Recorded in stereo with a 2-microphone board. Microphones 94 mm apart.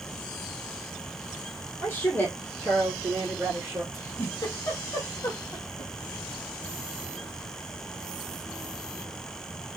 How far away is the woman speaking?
About 2.5 m.